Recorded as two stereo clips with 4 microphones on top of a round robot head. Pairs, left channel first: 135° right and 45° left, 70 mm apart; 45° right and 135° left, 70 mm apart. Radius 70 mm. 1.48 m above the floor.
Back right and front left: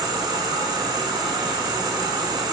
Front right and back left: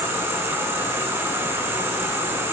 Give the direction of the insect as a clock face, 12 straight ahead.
9 o'clock.